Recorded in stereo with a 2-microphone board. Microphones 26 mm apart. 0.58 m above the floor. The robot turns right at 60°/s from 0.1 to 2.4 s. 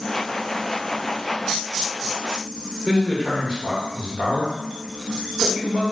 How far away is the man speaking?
About 1.3 m.